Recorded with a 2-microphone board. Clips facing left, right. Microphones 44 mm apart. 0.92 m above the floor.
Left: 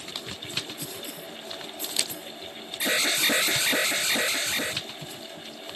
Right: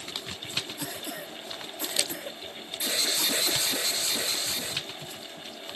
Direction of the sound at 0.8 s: 90° right.